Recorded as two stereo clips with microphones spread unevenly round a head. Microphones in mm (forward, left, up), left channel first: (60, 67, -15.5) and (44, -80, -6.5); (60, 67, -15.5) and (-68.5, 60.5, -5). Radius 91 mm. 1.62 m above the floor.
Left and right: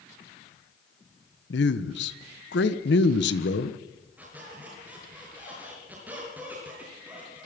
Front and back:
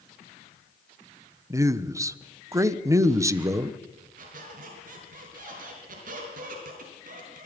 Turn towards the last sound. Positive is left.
turn(degrees=-175)